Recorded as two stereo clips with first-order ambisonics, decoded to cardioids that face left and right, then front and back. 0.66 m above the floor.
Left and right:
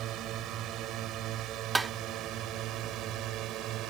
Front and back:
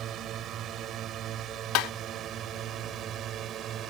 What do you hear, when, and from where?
0.0 s a drone: 130° right
1.8 s tapping: 10° right